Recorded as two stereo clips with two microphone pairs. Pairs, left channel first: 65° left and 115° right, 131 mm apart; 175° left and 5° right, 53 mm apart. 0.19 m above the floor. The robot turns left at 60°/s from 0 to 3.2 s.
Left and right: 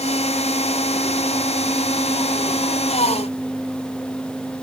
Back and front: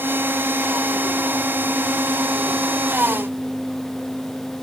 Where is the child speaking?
No child speaking in this recording.